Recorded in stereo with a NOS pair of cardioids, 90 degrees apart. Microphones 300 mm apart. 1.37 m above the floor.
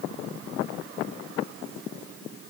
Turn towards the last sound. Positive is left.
No sound to turn to.